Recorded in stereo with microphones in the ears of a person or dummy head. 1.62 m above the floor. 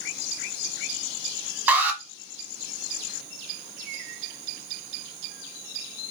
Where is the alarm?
10° right (ahead or behind), 1.1 m.